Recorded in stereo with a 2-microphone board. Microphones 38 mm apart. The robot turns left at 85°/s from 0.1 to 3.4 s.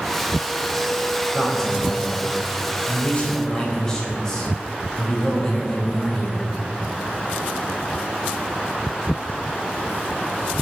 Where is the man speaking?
170° right, 4 m; by 6.5 s 15° left, 4 m.